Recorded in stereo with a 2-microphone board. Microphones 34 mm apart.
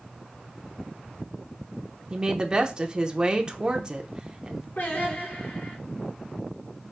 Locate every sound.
2.1 s a woman speaking: 25° right (ahead or behind), 0.8 m
4.8 s singing: 80° left, 3 m